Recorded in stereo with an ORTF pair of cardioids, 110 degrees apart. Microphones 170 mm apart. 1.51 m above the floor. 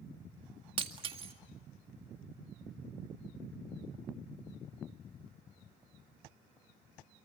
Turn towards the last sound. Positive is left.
turn(degrees=-35)